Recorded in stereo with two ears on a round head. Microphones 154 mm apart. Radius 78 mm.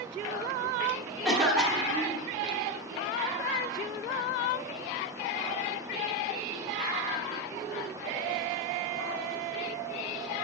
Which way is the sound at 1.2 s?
Centre (ahead or behind).